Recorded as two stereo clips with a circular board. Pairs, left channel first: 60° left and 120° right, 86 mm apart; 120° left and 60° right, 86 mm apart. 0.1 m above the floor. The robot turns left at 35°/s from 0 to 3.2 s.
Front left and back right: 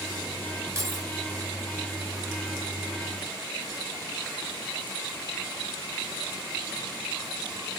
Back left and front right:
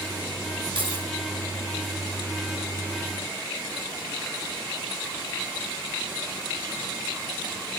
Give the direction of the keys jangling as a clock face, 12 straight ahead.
2 o'clock.